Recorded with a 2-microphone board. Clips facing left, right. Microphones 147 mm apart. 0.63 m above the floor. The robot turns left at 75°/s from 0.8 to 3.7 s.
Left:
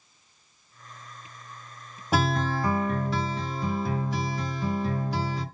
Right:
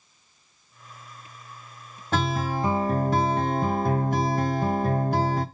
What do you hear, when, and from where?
2.1 s a guitar: 15° left, 0.8 m; by 5.5 s 105° right, 0.8 m